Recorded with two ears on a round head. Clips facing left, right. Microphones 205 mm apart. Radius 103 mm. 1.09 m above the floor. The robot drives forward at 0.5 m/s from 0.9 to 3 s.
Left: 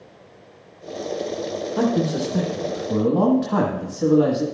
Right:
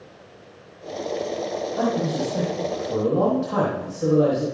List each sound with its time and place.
1.8 s a man speaking: 75° left (ahead or behind), 1.1 m; by 4.4 s 50° left (ahead or behind), 1.4 m